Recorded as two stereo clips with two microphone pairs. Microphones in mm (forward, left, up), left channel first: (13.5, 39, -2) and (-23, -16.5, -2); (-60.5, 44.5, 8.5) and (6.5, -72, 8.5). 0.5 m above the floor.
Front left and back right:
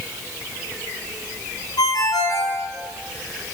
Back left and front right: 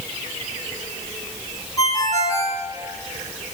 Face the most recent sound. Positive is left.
turn(degrees=55)